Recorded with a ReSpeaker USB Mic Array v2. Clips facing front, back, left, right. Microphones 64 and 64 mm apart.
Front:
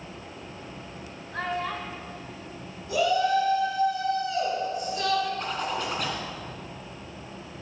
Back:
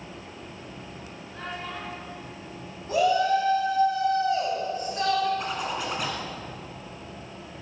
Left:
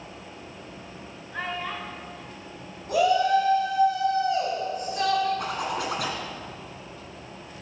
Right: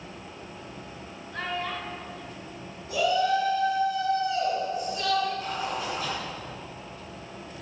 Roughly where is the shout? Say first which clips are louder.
Back 1 dB, left 3 dB; behind left.